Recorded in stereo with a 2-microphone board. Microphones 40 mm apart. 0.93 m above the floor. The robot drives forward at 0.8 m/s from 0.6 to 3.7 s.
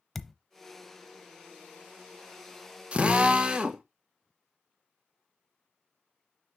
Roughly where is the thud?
Centre.